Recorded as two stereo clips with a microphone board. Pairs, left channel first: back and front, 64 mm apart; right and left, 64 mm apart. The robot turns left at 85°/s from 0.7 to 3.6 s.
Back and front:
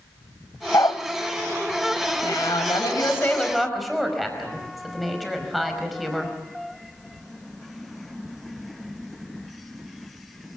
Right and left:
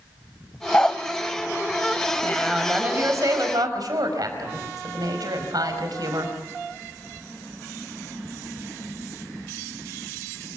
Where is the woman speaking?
155° right, 5 m; by 6.3 s 90° left, 5 m.